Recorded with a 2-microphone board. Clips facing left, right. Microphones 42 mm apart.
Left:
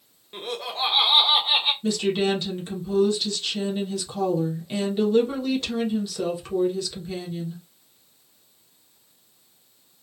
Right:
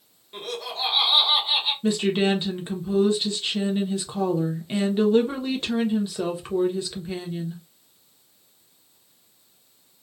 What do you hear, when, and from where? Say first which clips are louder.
0.3 s laughter: left 1 dB; 20° left (ahead or behind), 0.9 m; by 1.7 s 50° left (ahead or behind), 1.1 m
1.8 s a woman speaking: right 1 dB; 25° right (ahead or behind), 0.7 m